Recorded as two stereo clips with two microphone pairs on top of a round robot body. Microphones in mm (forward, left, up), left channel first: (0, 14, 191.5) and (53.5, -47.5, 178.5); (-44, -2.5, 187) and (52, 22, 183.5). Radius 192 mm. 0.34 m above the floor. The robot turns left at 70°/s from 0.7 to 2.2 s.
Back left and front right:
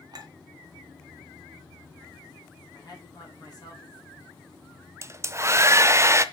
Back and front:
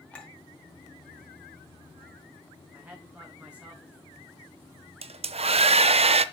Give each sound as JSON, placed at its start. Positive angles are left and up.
{"t": 0.1, "sound": "a clink", "azimuth_deg": -90, "distance_m": 2.5}
{"t": 2.7, "sound": "a woman speaking", "azimuth_deg": 90, "distance_m": 3.0}
{"t": 5.0, "sound": "a hair dryer", "azimuth_deg": 5, "distance_m": 0.6}